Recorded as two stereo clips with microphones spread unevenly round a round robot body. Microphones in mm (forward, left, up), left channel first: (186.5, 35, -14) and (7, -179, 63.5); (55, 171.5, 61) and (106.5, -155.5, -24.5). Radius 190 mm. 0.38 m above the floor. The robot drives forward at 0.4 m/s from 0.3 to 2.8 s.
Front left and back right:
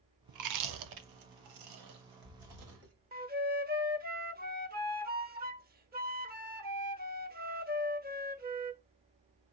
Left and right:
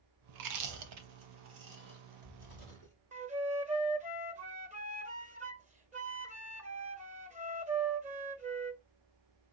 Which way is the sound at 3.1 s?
65° right.